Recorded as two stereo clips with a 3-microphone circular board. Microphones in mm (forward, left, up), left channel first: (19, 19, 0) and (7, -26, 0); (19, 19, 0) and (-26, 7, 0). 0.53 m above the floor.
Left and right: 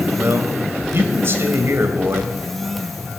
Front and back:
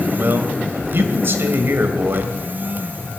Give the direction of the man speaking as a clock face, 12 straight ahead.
4 o'clock.